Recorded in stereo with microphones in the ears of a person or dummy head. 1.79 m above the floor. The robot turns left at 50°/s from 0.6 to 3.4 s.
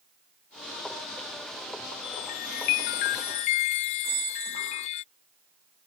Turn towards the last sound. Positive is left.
turn(degrees=-60)  # may be behind; listen again after turning